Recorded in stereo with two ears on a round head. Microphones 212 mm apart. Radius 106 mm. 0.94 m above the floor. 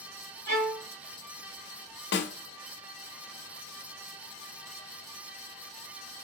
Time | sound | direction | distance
0.5 | a violin | 75° right (ahead or behind) | 2.5 m
2.1 | a snare drum | 50° left (ahead or behind) | 0.8 m